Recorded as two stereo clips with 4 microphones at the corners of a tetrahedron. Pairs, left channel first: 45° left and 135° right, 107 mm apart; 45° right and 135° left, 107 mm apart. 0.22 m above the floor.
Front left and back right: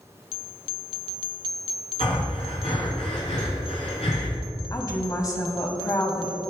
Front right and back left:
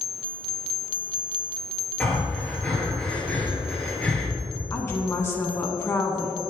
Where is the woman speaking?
5° left, 1.4 m.